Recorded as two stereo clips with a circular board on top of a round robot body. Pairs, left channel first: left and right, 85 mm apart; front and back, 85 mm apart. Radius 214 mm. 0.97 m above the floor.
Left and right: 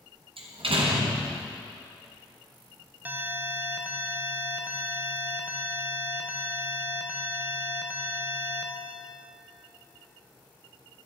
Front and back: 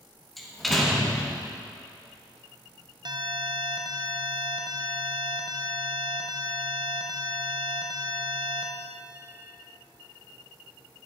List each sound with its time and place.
0.4 s a door slam: 90° right, 1.7 m
3.0 s an alarm: 160° right, 1.3 m